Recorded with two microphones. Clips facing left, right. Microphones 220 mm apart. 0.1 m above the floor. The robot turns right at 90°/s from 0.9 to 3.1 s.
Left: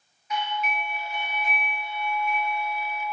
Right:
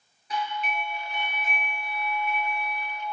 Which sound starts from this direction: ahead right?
A doorbell, at 0.3 s.